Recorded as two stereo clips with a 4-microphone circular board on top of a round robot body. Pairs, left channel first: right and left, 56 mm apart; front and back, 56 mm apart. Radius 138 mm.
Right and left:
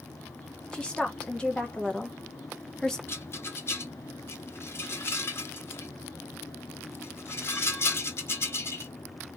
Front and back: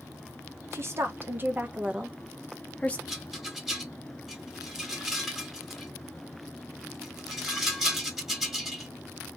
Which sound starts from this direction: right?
A rattle, at 3.1 s.